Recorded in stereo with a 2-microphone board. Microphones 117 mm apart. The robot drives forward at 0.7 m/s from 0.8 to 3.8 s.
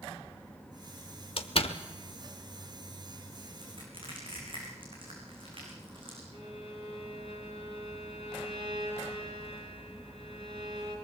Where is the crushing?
50° right (ahead or behind), 8.5 m.